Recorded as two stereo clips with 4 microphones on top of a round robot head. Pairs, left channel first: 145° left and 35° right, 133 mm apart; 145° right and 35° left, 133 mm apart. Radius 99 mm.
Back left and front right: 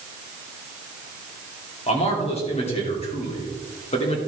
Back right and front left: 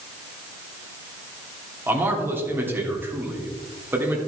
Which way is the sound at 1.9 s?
105° left.